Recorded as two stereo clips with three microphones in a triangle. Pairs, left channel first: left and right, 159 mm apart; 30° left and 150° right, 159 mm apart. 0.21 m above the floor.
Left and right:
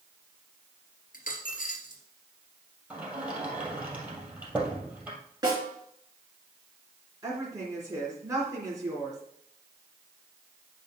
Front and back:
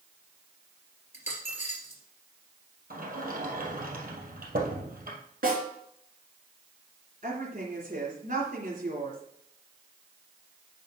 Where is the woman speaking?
155° right, 3 m.